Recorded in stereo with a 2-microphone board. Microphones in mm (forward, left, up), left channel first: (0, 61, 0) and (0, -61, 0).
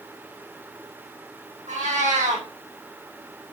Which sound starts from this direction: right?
A cat meowing, at 1.7 s.